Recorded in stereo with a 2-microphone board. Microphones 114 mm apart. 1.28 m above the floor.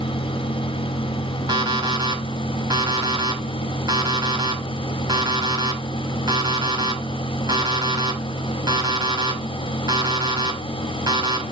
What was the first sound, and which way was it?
An alarm clock, 40° right (ahead or behind).